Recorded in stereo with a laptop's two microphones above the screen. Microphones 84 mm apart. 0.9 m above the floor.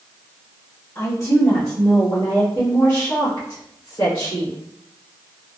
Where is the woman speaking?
50° left (ahead or behind), 1.3 m; by 4.5 s 80° left, 2.5 m.